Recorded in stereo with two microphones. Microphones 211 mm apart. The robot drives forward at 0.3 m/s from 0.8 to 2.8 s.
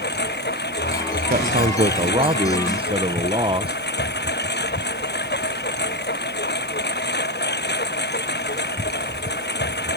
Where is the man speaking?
40° right (ahead or behind); by 3.8 s 25° right (ahead or behind).